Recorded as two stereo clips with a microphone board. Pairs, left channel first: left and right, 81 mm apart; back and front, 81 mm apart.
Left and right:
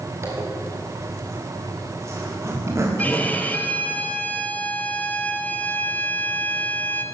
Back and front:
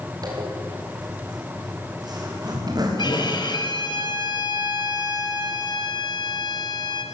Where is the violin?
160° left, 2 m.